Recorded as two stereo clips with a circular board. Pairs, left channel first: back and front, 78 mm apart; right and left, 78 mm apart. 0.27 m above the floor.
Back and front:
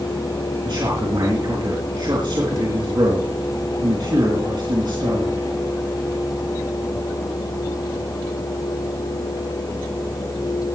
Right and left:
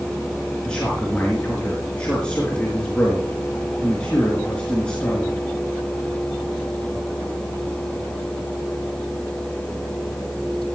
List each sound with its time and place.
0.7 s a man speaking: 15° right, 4 m